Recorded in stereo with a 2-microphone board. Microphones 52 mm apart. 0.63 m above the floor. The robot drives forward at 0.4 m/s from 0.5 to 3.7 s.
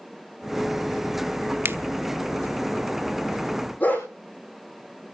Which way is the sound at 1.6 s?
45° right (ahead or behind).